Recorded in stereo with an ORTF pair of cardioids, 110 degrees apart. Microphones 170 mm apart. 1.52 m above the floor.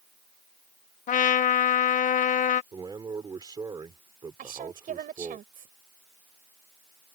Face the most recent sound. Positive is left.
turn(degrees=-55)